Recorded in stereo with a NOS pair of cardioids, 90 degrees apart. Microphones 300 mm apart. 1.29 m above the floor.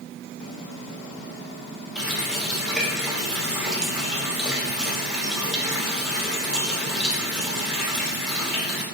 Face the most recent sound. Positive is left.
turn(degrees=0)